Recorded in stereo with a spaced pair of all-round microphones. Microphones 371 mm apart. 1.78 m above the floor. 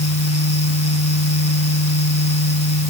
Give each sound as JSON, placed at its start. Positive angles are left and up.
{"t": 0.0, "sound": "a fan", "side_deg": 85}